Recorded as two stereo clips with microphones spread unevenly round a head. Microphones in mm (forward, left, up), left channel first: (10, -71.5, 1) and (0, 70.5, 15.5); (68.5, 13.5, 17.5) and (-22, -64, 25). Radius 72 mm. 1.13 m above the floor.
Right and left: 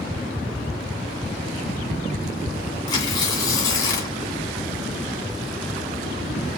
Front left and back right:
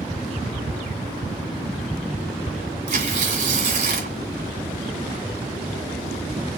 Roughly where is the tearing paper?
Behind right.